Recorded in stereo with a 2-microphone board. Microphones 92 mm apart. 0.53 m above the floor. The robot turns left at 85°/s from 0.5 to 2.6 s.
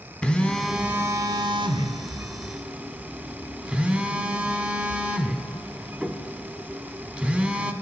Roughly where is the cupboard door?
I don't hear a cupboard door.